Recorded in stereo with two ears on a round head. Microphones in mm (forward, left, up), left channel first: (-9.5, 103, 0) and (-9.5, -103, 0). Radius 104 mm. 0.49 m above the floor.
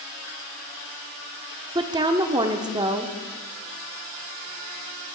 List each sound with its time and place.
1.8 s a woman speaking: 20° right (ahead or behind), 0.7 m